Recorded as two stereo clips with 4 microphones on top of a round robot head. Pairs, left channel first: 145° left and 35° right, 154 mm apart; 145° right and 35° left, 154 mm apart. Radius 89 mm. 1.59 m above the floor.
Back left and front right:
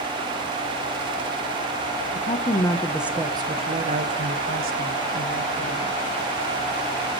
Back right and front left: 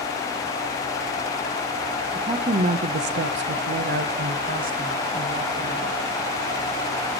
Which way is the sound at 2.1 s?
100° left.